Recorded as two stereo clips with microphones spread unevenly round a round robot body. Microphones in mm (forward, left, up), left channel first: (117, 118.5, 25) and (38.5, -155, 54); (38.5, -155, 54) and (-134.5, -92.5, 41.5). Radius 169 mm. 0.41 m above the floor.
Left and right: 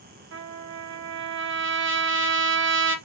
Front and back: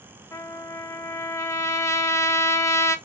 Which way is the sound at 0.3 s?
95° right.